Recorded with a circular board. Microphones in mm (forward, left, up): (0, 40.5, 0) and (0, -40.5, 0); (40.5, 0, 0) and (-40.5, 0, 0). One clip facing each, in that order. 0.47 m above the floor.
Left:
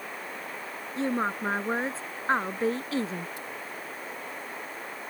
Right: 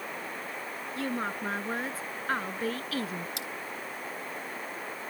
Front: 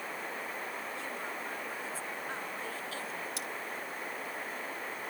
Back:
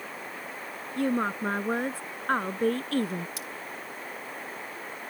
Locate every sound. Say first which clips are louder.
1.0 s a woman speaking: left 5 dB, back 12 dB; 155° left
3.4 s cutlery clinking: even, even; 90° right